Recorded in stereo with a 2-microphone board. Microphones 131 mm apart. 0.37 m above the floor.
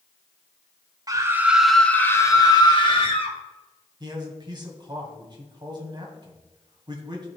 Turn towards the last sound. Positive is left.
turn(degrees=-35)  # may be behind; listen again after turning